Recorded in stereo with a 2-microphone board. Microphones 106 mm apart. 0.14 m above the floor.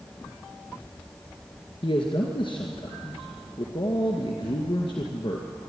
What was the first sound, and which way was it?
A man speaking, 55° left (ahead or behind).